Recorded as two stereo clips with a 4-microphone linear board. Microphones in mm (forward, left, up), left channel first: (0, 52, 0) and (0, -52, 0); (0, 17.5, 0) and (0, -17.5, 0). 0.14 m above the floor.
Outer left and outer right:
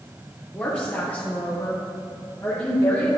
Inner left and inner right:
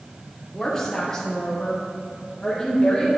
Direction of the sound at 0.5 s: 10° left (ahead or behind).